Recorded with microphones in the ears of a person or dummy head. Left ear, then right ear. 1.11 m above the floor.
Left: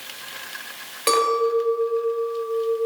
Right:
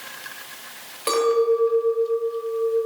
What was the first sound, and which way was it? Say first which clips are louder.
A clink: even; 10° left (ahead or behind).